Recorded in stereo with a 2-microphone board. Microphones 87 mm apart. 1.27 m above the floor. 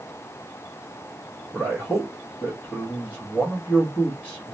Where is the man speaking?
25° left (ahead or behind), 0.9 m.